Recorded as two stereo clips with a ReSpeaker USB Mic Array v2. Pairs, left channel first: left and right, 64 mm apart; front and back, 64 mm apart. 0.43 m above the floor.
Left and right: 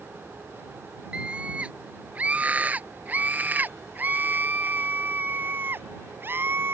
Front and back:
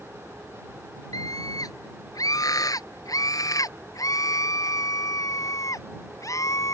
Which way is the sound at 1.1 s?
15° right.